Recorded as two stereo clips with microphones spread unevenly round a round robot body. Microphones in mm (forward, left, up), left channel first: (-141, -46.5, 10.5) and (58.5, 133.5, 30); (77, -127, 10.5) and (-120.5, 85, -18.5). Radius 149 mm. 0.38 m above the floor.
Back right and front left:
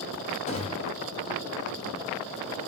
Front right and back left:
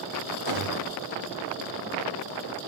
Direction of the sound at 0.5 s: 155° left.